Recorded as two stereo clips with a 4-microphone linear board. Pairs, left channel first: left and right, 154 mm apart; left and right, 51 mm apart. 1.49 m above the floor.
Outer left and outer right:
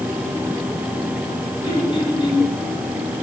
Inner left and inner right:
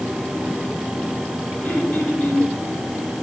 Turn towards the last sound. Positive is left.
turn(degrees=35)  # may be behind; listen again after turning